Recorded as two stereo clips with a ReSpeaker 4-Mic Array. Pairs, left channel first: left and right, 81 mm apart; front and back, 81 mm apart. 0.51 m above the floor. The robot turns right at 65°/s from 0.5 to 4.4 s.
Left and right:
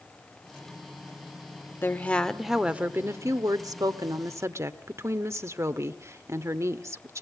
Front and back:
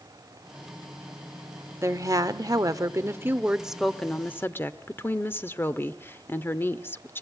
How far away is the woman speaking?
About 1.1 m.